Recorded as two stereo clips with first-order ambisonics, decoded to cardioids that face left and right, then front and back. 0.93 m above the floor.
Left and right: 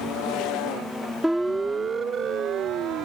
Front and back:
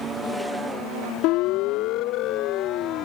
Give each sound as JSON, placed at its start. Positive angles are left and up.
{"t": 1.2, "sound": "a siren", "azimuth_deg": -5}